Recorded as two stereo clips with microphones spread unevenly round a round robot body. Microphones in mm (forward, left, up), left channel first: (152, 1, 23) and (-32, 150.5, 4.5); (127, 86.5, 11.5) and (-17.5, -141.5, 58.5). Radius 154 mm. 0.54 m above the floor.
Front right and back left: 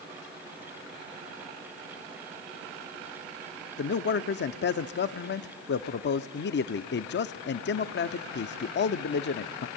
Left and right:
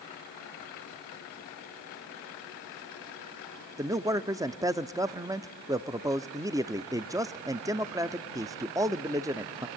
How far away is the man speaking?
About 0.7 m.